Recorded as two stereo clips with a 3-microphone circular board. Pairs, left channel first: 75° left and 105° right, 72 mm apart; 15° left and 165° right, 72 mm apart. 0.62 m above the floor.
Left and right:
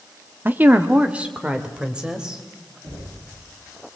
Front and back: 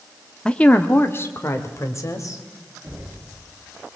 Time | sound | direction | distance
0.5 | a woman speaking | 60° right | 1.1 m
2.8 | knocking | 105° right | 7.5 m